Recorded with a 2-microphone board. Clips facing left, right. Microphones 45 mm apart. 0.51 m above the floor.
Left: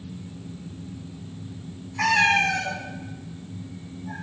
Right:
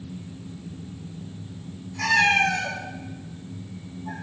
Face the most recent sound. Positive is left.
turn(degrees=-70)  # may be behind; listen again after turning